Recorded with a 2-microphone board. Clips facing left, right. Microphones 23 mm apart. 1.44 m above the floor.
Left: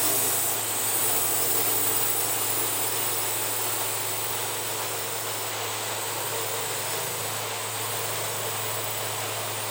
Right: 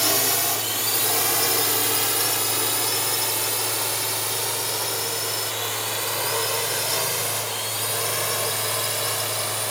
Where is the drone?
55° right (ahead or behind); by 9.7 s 70° right (ahead or behind).